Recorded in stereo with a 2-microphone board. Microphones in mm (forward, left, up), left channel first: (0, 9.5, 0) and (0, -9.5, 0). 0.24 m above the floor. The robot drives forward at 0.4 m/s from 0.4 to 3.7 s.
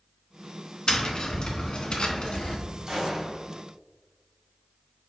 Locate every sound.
0.9 s tapping: 50° left (ahead or behind), 1.1 m; by 2.6 s 65° left (ahead or behind), 1.0 m
2.9 s a gunshot: 55° right (ahead or behind), 1.7 m